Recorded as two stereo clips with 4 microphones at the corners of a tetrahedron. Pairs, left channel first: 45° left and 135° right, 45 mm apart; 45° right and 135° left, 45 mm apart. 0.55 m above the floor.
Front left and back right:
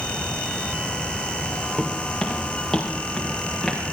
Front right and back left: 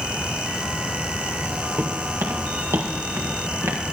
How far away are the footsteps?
About 3 m.